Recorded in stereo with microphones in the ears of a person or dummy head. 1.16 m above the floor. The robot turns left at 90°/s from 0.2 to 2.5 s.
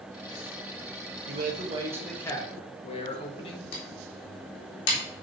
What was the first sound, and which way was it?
A man speaking, 110° right.